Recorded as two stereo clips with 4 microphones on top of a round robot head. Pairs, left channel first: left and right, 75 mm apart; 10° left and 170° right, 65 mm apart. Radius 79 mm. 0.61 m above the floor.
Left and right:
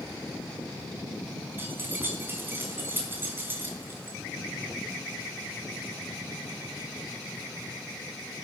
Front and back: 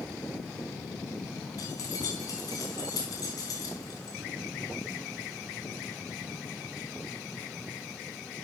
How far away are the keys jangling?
About 4.5 m.